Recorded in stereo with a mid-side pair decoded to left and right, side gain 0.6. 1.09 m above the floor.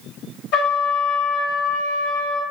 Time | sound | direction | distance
0.5 | a trumpet | 70° left | 1.4 m